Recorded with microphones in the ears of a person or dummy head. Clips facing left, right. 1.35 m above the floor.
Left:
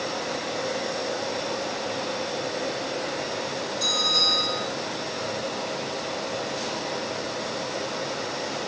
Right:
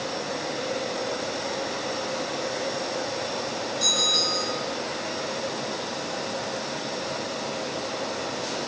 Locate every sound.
3.8 s a bell: 10° right (ahead or behind), 1.2 m